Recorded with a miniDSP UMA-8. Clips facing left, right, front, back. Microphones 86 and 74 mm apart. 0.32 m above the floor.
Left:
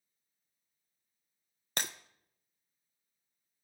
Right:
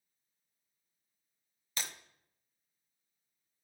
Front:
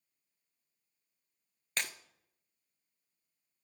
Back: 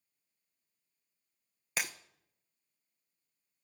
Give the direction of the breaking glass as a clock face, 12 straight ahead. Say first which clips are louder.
Left 5 dB, back 1 dB; 9 o'clock.